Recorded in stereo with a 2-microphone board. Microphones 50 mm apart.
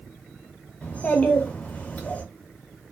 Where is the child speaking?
30° left (ahead or behind), 0.8 m.